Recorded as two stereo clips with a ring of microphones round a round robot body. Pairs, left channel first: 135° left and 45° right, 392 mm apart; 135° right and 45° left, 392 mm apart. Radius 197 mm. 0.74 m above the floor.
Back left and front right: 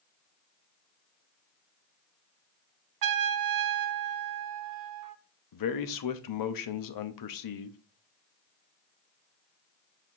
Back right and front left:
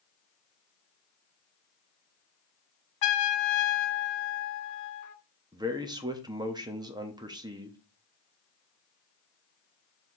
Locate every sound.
3.0 s a trumpet: 90° right, 0.6 m
5.5 s a man speaking: 120° left, 0.9 m